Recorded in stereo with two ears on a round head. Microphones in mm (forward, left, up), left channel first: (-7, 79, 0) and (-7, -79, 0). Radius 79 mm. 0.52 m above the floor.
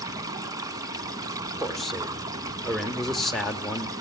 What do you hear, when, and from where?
0.0 s running water: 20° right (ahead or behind), 1.1 m
1.6 s a man speaking: centre (ahead or behind), 1.2 m